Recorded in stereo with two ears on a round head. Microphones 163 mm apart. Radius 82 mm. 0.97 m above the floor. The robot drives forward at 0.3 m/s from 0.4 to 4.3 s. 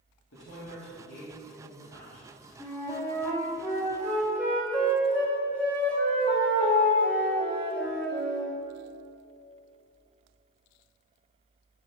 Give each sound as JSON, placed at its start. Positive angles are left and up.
{"t": 0.3, "sound": "a woman speaking", "side_deg": 75, "distance_m": 1.9}
{"t": 2.6, "sound": "a flute", "side_deg": 15, "distance_m": 1.3}